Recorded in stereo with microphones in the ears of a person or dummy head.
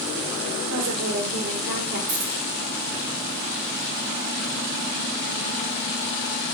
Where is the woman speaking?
70° right (ahead or behind), 2 m; by 2.0 s 55° right (ahead or behind), 1.4 m.